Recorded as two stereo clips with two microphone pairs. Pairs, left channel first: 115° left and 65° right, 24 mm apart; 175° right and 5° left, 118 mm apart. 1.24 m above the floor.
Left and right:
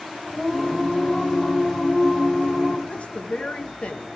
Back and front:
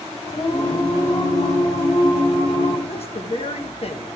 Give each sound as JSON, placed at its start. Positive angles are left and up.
{"t": 0.3, "sound": "singing", "azimuth_deg": -165, "distance_m": 4.5}
{"t": 2.9, "sound": "a woman speaking", "azimuth_deg": 150, "distance_m": 1.1}